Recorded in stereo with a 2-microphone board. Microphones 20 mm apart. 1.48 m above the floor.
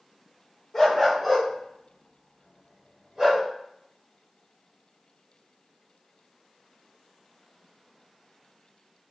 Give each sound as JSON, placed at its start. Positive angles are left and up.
{"t": 0.7, "sound": "a dog barking", "side_deg": 20, "distance_m": 1.2}